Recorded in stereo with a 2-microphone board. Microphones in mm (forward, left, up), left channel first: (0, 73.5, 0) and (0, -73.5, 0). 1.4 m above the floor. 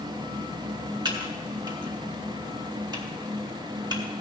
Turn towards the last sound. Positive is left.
turn(degrees=-30)  # may be behind; listen again after turning